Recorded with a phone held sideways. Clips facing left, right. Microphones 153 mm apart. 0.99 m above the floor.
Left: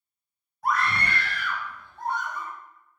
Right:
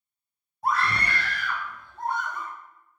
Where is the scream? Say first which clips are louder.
Even; 25° right (ahead or behind), 0.7 m; by 2.5 s 50° right (ahead or behind), 1.6 m.